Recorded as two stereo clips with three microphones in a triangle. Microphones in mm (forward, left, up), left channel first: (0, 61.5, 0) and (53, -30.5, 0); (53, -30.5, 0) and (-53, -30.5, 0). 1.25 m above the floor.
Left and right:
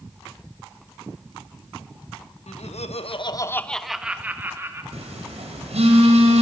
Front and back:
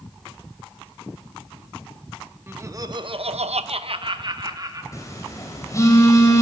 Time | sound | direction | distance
2.5 | laughter | 115° left | 1.2 m
4.9 | a phone buzzing | 60° right | 4.5 m